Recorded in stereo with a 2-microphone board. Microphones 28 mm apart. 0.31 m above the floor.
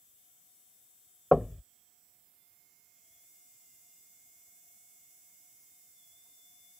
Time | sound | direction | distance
1.3 | knocking | 10° right (ahead or behind) | ?